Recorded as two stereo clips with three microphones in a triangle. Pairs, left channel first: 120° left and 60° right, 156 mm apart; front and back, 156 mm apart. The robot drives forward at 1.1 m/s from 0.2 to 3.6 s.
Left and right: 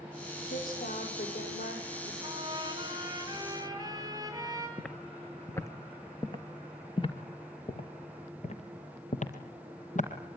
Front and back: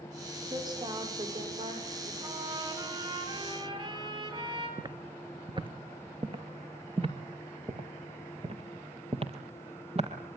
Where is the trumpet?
120° right, 8.5 m; by 4.7 s 125° right, 9.5 m.